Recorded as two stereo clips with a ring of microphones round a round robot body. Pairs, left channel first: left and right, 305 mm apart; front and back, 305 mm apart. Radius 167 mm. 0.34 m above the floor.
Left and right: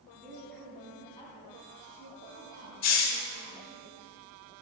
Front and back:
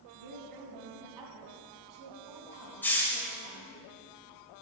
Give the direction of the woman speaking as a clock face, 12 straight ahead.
6 o'clock.